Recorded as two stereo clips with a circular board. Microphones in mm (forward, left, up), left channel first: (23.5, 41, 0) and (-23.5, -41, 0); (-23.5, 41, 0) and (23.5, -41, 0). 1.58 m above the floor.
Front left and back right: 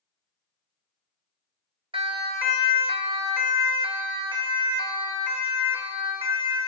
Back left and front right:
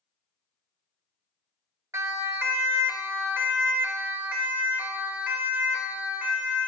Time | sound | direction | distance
1.9 | a siren | 120° right | 2.5 m